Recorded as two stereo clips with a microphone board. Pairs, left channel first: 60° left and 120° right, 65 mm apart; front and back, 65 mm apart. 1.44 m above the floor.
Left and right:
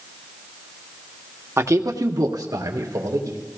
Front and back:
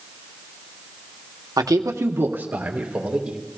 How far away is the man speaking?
About 1.0 m.